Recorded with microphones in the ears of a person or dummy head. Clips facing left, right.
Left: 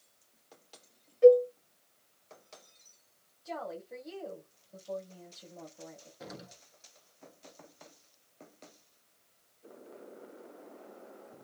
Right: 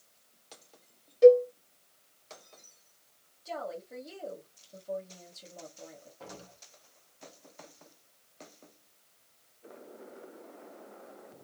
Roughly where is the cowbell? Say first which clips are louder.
Right 1 dB; right.